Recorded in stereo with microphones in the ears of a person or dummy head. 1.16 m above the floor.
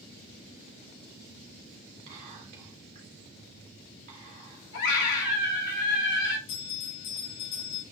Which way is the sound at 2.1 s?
45° right (ahead or behind).